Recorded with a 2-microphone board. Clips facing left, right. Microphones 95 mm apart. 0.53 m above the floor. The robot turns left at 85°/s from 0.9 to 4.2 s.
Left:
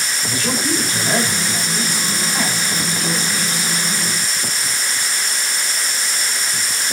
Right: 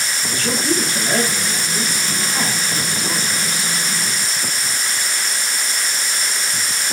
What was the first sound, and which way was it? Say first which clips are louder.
A man speaking: right 1 dB; 15° left (ahead or behind).